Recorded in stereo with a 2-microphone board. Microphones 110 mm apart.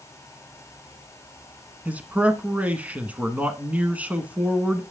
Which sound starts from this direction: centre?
A man speaking, at 1.9 s.